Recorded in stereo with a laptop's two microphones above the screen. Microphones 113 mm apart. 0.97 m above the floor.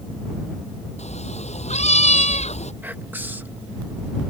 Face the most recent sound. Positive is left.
turn(degrees=-15)  # may be behind; listen again after turning